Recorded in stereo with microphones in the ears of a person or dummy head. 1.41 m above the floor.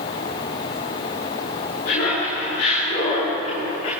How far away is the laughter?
About 9.5 m.